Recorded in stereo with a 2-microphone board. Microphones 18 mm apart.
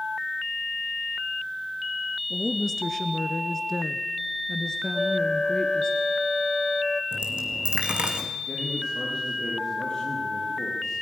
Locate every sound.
2.3 s a woman speaking: 5° left (ahead or behind), 1.3 m; by 5.9 s 30° left (ahead or behind), 1.9 m
4.9 s a flute: 30° left (ahead or behind), 0.6 m
7.1 s a dropped coin: 60° right (ahead or behind), 2.5 m
8.5 s a man speaking: 55° left (ahead or behind), 7 m